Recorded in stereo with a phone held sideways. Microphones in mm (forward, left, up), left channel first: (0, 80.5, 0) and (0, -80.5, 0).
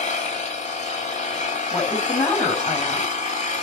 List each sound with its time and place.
0.0 s an engine running: 45° left (ahead or behind), 6.5 m
1.7 s a woman speaking: 20° left (ahead or behind), 6 m